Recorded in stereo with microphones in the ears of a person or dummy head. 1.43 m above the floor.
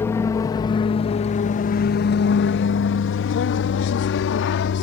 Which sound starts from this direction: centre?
An aircraft, at 0.0 s.